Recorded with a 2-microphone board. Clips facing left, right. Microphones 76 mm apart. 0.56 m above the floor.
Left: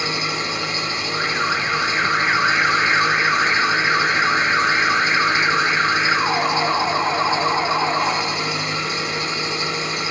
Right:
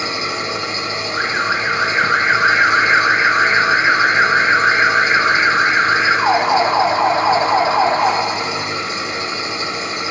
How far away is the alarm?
About 2 m.